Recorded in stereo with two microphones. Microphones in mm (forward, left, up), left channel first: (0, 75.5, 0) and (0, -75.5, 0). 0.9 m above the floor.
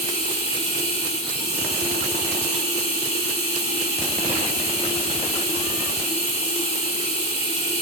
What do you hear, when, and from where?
0.0 s running water: 45° left (ahead or behind), 3 m